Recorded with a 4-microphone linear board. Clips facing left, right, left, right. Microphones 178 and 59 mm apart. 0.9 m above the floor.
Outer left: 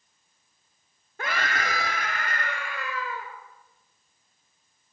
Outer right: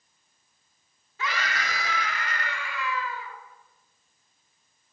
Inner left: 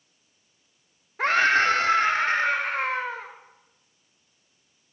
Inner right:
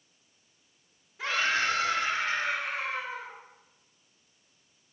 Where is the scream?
50° left (ahead or behind), 1.9 m.